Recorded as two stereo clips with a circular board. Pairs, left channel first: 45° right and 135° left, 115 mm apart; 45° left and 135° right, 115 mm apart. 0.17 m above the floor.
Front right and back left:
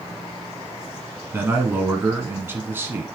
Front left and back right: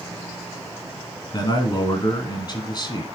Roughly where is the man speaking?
Left.